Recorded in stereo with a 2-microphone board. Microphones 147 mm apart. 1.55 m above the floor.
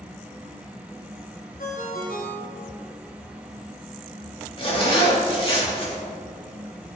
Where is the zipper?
40° left (ahead or behind), 3 m.